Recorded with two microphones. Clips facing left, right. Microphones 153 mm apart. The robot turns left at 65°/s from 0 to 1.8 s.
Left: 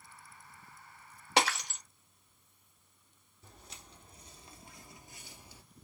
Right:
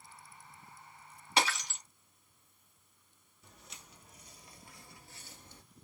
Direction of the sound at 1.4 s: 70° left (ahead or behind).